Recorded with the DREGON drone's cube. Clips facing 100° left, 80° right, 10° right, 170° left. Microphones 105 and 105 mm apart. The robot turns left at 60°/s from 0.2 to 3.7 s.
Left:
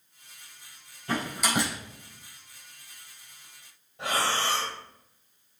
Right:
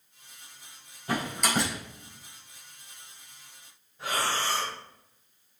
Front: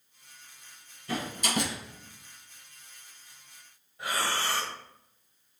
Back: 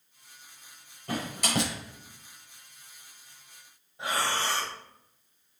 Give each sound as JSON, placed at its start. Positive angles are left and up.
{"t": 1.1, "sound": "a door slam", "azimuth_deg": -150, "distance_m": 3.5}
{"t": 4.0, "sound": "breathing", "azimuth_deg": 100, "distance_m": 3.0}